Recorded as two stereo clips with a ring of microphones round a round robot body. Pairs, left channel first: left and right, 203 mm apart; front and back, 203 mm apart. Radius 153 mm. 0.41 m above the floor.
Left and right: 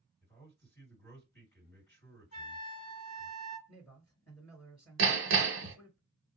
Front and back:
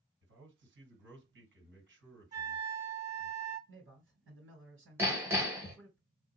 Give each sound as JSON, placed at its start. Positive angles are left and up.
{"t": 0.2, "sound": "a man speaking", "azimuth_deg": 170, "distance_m": 3.0}
{"t": 2.3, "sound": "a flute", "azimuth_deg": 125, "distance_m": 2.5}
{"t": 3.7, "sound": "a man speaking", "azimuth_deg": 170, "distance_m": 3.0}
{"t": 5.0, "sound": "hammering", "azimuth_deg": -100, "distance_m": 1.0}